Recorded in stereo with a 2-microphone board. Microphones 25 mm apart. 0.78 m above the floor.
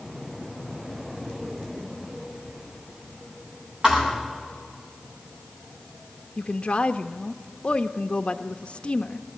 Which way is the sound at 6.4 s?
45° left (ahead or behind).